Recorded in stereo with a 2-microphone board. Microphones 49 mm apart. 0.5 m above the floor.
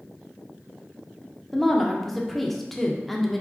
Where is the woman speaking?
5° left (ahead or behind), 0.7 m.